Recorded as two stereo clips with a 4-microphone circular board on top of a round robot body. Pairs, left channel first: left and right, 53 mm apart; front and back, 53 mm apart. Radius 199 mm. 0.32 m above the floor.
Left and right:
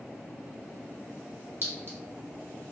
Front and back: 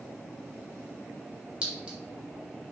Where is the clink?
115° right, 1.1 m.